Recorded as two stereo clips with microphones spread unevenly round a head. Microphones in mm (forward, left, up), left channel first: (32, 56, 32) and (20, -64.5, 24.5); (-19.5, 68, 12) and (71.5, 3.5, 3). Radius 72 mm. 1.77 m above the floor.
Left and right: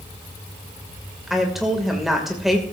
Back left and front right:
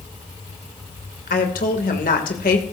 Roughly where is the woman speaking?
Behind.